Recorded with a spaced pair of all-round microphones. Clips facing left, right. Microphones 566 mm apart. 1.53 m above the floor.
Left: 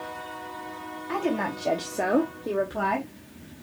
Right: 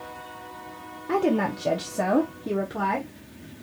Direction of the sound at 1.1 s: 60° right (ahead or behind).